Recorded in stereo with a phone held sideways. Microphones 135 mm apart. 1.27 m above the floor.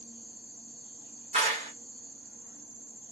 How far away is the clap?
About 1.5 m.